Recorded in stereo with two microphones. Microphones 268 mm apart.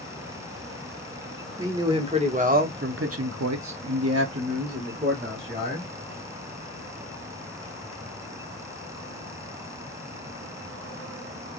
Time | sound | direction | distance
1.6 | a man speaking | 15° right (ahead or behind) | 1.2 m